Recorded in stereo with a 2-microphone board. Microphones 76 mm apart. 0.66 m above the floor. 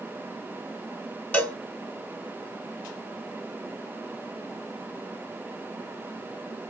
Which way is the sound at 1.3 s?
15° left (ahead or behind).